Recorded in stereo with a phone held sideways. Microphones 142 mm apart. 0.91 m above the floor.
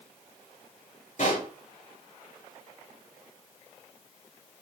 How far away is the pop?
About 5 m.